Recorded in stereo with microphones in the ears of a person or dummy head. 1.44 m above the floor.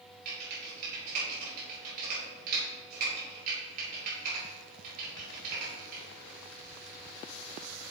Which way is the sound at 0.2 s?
50° right (ahead or behind).